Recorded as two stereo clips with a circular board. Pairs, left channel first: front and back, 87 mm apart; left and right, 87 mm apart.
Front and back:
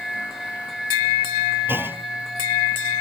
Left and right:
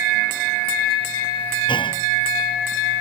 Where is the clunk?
115° left.